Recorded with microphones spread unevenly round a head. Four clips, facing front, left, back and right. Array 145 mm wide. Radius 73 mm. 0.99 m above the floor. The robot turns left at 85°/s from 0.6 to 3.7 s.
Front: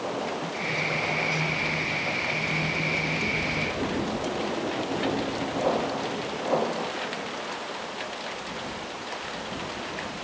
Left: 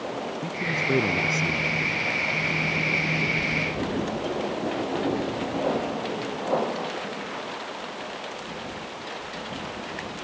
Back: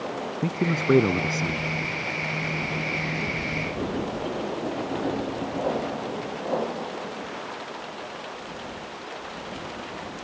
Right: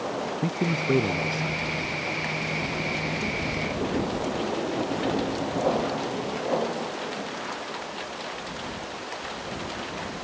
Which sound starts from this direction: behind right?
A man speaking, at 0.4 s.